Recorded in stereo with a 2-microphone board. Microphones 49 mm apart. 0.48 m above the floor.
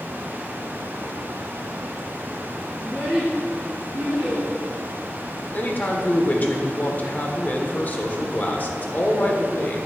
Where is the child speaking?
10° right (ahead or behind), 2.5 m; by 4.4 s 45° right (ahead or behind), 3.5 m.